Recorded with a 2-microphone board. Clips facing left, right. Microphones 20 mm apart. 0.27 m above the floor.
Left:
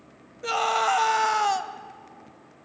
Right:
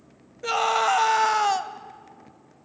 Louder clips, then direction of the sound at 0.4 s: Right 1 dB; centre (ahead or behind).